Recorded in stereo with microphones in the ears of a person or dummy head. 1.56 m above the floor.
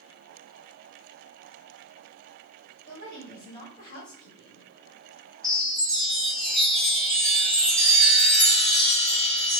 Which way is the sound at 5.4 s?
5° right (ahead or behind).